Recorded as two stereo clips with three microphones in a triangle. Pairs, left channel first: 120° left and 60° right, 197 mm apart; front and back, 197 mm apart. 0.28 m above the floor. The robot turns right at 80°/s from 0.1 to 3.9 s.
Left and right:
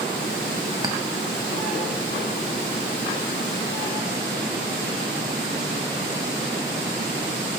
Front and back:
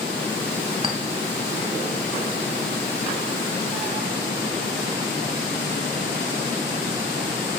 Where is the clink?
130° right, 0.8 m; by 1.0 s 115° right, 0.8 m.